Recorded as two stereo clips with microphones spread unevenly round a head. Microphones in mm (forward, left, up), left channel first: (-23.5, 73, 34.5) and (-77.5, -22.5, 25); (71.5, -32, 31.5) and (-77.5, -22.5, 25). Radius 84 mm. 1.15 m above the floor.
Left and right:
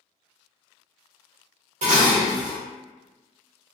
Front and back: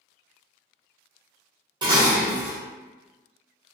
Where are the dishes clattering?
125° right, 0.8 m.